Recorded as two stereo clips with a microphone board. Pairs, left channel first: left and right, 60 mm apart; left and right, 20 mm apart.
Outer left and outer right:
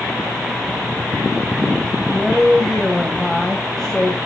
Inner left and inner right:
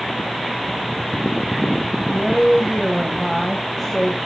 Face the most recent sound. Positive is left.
turn(degrees=10)  # may be behind; listen again after turning